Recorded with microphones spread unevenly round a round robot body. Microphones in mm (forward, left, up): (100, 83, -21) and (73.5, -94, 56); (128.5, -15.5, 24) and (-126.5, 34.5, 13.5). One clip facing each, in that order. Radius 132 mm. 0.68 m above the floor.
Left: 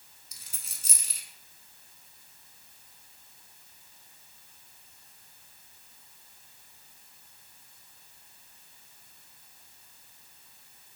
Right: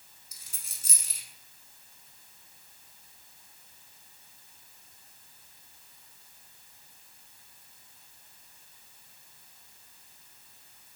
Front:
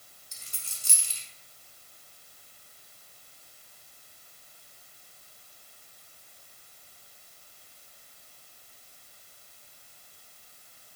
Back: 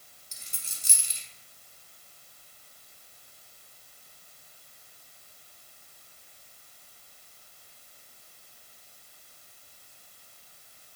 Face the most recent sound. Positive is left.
turn(degrees=100)